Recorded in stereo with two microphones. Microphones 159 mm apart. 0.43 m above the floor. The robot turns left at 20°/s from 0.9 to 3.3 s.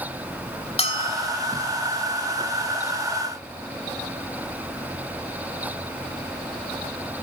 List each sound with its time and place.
0.8 s a bell: 35° left (ahead or behind), 1.0 m; by 1.4 s 30° left (ahead or behind), 1.0 m